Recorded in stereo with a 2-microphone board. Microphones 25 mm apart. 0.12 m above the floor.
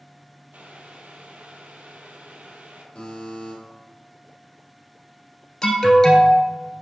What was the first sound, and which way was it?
Boiling, 75° right (ahead or behind).